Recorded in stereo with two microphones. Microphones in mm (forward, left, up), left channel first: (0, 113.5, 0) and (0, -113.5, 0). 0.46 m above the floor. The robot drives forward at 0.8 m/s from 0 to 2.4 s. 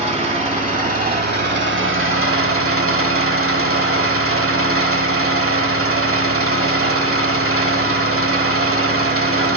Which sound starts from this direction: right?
An engine running, at 0.0 s.